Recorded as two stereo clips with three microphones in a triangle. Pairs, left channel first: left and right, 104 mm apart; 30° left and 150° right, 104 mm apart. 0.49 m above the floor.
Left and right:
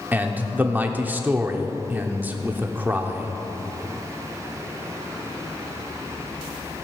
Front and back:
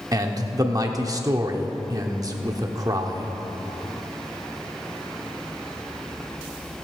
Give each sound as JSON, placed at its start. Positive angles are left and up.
{"t": 0.1, "sound": "a man speaking", "azimuth_deg": -150, "distance_m": 0.9}